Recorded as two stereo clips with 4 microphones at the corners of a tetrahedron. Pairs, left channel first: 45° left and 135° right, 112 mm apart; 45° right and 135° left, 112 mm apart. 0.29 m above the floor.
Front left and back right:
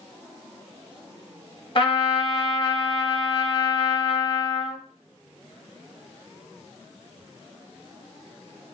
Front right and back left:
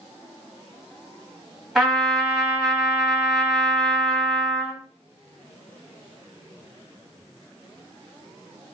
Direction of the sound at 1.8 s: 50° left.